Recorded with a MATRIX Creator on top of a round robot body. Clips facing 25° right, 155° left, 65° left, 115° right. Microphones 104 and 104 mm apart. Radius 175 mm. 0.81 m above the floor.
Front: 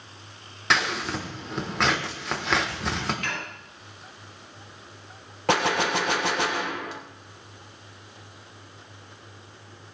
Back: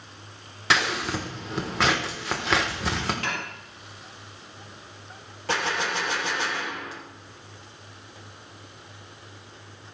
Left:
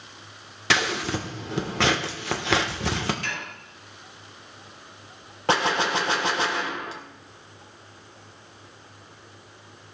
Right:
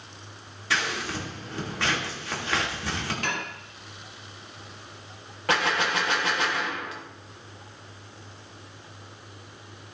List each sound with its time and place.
0.7 s scissors: 70° left, 1.2 m
3.2 s dishes clattering: 150° right, 1.7 m
5.5 s a gunshot: 5° left, 0.9 m